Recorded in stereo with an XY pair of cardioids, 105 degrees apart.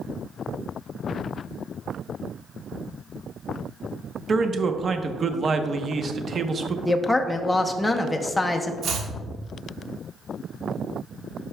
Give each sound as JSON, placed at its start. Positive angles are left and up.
{"t": 4.3, "sound": "a man speaking", "azimuth_deg": -40, "distance_m": 0.9}
{"t": 6.8, "sound": "a woman speaking", "azimuth_deg": 15, "distance_m": 0.8}
{"t": 8.8, "sound": "chopping", "azimuth_deg": -70, "distance_m": 1.5}